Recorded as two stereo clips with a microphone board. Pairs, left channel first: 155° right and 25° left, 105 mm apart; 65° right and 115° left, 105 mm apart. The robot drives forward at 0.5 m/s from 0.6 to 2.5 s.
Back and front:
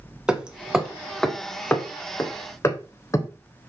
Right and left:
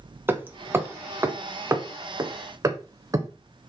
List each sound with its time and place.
0.3 s hammering: 90° left, 1.1 m; by 3.3 s 155° left, 1.5 m